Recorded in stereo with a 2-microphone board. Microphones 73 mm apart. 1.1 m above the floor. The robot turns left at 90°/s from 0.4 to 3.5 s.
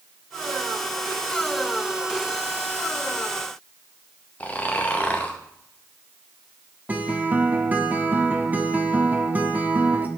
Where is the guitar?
25° right (ahead or behind), 1.0 m.